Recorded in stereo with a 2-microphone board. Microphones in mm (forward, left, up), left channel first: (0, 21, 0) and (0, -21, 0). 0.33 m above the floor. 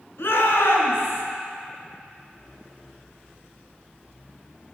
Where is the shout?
75° left (ahead or behind), 3 m.